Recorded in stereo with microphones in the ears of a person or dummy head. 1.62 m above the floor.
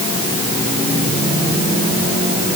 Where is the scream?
I don't hear a scream.